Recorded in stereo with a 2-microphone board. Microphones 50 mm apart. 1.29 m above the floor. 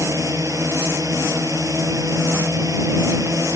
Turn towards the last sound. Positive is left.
turn(degrees=-90)